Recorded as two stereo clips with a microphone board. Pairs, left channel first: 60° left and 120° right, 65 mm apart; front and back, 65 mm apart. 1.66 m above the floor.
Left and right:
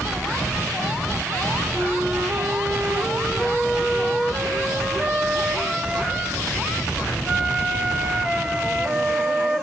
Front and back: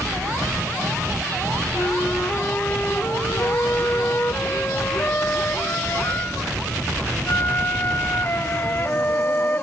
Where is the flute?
45° right, 1.2 m.